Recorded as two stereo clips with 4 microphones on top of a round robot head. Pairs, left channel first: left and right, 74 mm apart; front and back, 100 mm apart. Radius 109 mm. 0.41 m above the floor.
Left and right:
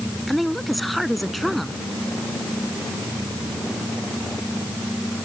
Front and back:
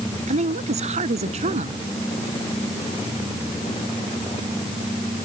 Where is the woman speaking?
Straight behind.